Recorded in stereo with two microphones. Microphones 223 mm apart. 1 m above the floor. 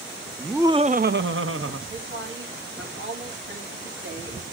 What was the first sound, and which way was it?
Laughter, centre (ahead or behind).